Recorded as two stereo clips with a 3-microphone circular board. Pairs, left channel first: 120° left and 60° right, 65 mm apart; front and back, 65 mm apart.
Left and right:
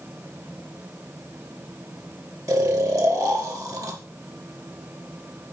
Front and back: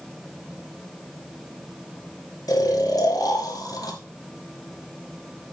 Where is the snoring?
30° right, 2 m.